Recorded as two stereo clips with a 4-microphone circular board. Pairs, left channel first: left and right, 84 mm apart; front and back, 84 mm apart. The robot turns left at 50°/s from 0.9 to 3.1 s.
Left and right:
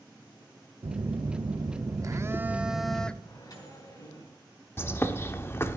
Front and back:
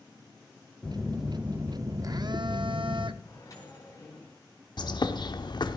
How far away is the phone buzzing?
About 0.7 m.